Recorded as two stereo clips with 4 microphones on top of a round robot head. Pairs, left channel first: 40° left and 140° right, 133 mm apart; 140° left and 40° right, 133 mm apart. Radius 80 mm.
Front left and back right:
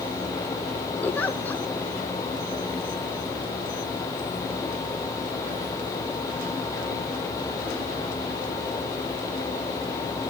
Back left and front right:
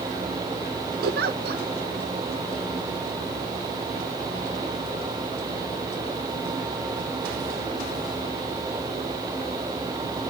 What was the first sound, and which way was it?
A giggle, 40° right.